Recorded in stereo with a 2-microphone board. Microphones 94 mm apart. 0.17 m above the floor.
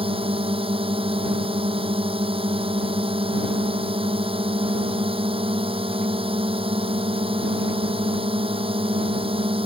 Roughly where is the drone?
Right.